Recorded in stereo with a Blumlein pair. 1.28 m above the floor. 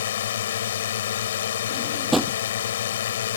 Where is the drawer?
Straight ahead.